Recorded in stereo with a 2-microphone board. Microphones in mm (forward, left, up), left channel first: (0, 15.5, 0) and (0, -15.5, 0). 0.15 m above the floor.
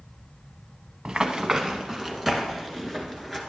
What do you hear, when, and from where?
1.1 s running footsteps: 20° right (ahead or behind), 0.8 m; by 3.4 s 10° left (ahead or behind), 2.5 m